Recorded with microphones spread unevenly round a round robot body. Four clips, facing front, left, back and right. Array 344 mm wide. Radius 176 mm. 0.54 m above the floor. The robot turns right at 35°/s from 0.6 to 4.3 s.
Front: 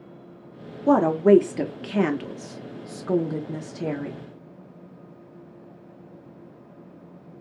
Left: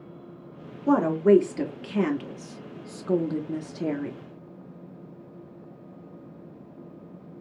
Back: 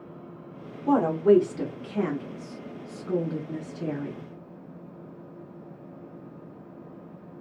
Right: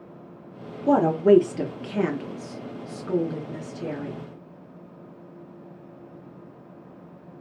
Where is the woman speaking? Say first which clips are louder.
Right 2 dB, front 3 dB; 40° right, 0.8 m; by 4.2 s 75° left, 0.8 m.